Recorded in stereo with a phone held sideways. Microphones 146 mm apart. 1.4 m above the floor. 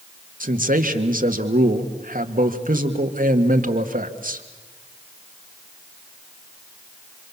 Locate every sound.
0.4 s a man speaking: 70° right (ahead or behind), 1.8 m